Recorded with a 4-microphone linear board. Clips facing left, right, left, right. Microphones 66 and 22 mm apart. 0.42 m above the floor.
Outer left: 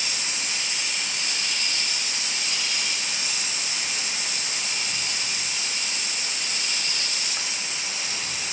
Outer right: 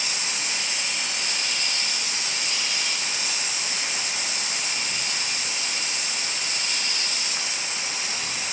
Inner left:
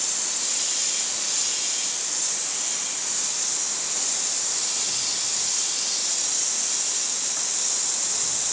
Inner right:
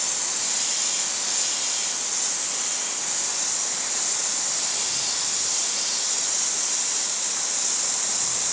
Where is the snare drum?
No snare drum in this recording.